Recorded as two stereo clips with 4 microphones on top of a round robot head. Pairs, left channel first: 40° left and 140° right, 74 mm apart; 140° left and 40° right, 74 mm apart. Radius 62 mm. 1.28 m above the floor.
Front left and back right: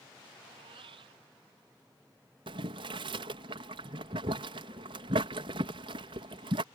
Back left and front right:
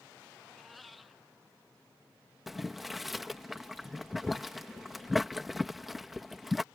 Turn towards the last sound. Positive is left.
turn(degrees=-125)